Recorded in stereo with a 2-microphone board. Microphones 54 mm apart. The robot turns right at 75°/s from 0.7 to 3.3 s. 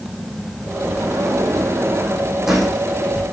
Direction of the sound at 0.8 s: 130° right.